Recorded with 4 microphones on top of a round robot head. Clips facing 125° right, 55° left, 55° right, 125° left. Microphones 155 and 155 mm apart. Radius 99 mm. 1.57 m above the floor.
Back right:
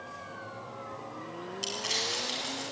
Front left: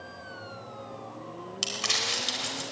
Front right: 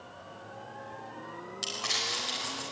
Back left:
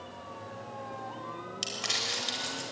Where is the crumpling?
55° left, 4.5 m.